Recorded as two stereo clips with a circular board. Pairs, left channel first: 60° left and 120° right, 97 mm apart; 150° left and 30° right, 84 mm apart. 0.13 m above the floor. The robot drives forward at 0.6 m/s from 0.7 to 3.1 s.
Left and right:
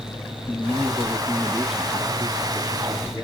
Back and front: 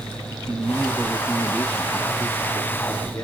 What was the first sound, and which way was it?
A man speaking, 10° left.